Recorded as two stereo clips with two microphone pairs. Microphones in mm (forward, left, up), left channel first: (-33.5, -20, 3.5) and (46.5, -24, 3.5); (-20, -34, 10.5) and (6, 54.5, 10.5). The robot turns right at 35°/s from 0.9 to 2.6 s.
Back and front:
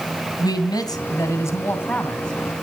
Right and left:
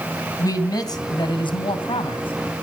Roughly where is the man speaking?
Behind right.